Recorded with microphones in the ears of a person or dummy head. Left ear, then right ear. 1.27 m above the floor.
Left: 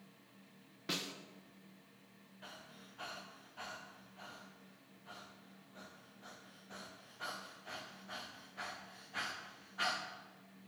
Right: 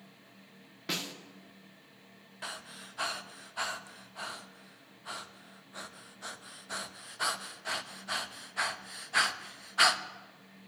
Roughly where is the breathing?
Right.